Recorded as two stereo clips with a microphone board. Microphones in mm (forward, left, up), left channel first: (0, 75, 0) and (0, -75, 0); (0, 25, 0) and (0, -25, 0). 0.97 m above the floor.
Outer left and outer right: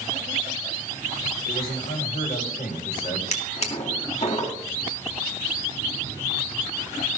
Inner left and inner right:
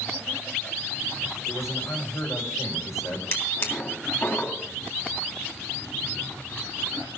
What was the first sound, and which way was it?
A man speaking, 75° left (ahead or behind).